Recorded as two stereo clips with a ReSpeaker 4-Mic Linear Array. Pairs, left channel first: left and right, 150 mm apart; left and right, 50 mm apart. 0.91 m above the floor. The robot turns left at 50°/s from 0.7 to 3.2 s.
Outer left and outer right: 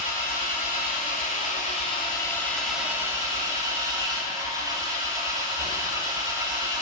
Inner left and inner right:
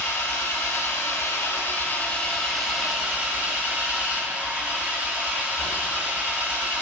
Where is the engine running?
100° left, 1.9 m; by 6.8 s 25° right, 1.9 m.